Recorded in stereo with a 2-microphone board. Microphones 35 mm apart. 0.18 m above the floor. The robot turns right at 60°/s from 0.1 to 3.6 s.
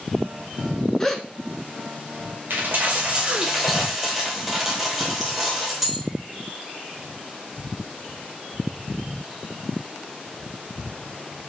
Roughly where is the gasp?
Centre.